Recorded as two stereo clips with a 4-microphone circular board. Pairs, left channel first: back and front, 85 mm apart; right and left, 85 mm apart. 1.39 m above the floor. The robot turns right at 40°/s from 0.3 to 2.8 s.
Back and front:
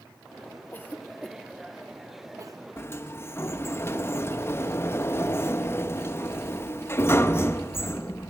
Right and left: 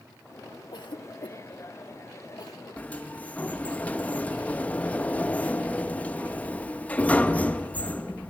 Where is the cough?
120° right, 1.2 m; by 2.6 s 40° right, 1.2 m.